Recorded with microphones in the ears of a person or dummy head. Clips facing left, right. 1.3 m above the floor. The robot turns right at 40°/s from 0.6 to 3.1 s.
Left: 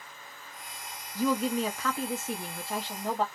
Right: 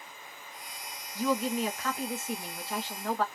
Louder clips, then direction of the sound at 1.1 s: Left 2 dB; 80° left.